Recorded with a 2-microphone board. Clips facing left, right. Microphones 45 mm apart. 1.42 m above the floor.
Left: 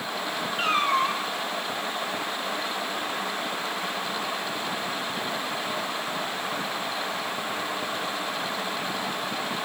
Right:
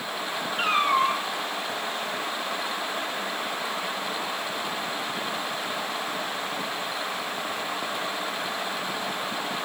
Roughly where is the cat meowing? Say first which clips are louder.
Right 1 dB; centre.